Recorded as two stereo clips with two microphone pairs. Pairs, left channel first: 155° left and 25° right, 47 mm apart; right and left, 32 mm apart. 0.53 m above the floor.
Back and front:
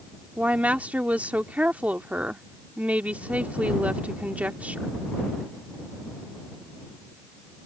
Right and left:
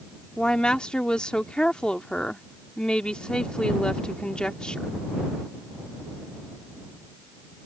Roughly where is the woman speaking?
Ahead right.